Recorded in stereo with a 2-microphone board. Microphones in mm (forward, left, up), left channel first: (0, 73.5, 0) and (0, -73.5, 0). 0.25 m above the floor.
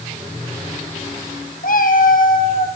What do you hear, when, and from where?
1.6 s a cat meowing: 70° left (ahead or behind), 2.5 m